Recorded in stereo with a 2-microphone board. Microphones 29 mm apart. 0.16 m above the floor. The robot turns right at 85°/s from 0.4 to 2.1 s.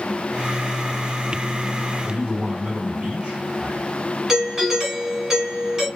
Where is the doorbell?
20° right (ahead or behind), 1.5 m.